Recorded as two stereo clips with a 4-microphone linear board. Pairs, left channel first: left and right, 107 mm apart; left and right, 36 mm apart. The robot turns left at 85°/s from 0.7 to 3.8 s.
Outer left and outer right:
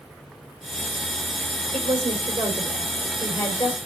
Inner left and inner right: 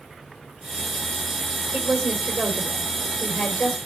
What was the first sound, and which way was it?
A woman speaking, 60° right.